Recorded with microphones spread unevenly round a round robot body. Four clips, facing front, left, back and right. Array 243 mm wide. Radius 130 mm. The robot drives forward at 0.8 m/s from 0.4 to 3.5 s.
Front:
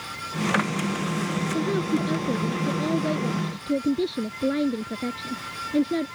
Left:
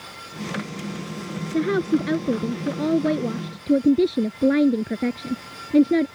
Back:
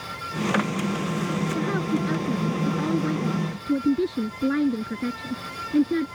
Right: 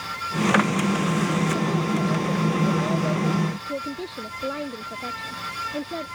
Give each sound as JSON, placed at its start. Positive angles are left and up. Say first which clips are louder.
{"t": 1.5, "sound": "a woman speaking", "louder": "left 3 dB, front 3 dB", "azimuth_deg": 105}